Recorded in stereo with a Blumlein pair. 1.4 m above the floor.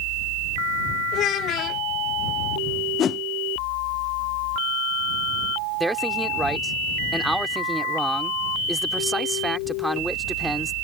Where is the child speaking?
30° left.